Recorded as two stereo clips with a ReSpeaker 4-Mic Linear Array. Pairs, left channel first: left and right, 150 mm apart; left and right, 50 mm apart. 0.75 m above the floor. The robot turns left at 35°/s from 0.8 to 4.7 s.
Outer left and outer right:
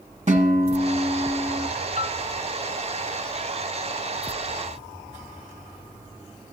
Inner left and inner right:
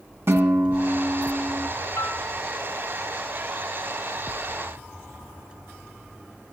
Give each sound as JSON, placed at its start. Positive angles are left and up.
{"t": 0.3, "sound": "a guitar", "azimuth_deg": -125, "distance_m": 1.6}
{"t": 2.0, "sound": "a piano", "side_deg": 60, "distance_m": 1.1}